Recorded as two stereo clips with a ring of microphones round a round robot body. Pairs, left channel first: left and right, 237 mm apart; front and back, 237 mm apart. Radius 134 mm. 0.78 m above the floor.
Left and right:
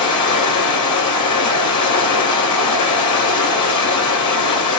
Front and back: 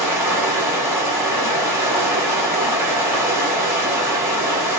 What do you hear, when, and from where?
0.0 s running water: 100° left, 3.5 m